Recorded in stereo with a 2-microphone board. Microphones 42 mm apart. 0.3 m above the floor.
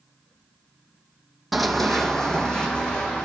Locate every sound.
1.5 s running footsteps: 5° right (ahead or behind), 0.8 m; by 3.3 s 20° left (ahead or behind), 1.6 m